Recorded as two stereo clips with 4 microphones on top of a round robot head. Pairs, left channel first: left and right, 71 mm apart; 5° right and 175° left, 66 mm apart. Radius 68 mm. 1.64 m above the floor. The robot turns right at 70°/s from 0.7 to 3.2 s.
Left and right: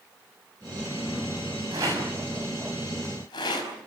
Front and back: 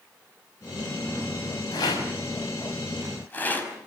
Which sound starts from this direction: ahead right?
A rattle, at 1.7 s.